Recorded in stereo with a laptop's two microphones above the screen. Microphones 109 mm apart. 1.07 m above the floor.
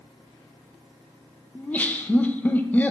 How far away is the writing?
I don't hear writing.